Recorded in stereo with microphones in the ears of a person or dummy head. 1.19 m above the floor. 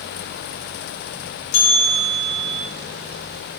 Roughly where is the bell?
Left.